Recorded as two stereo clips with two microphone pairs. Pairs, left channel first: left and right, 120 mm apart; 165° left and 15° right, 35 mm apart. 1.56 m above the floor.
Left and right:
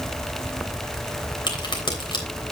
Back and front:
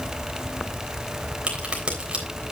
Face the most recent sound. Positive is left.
turn(degrees=40)